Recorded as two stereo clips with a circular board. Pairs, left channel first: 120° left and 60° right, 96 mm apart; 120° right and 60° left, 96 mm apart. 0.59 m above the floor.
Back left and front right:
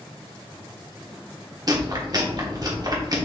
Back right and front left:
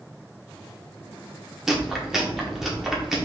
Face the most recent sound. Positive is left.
turn(degrees=-25)